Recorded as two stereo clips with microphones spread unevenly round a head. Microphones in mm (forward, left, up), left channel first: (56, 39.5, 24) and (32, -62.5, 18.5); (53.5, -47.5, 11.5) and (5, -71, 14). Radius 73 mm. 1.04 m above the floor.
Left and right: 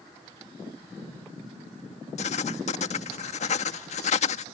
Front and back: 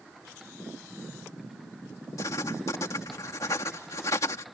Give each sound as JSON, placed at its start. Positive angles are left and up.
{"t": 2.2, "sound": "writing", "azimuth_deg": 75}